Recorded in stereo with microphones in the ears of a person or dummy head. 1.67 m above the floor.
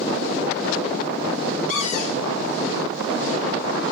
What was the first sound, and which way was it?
A cupboard door, 45° left (ahead or behind).